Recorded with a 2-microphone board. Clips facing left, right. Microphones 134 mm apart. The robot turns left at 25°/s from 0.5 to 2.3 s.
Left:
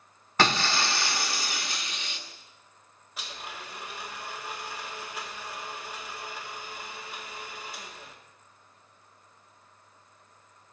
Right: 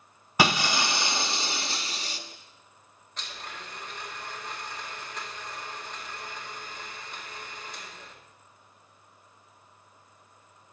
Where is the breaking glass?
15° right, 0.8 m; by 2.2 s 60° right, 0.8 m.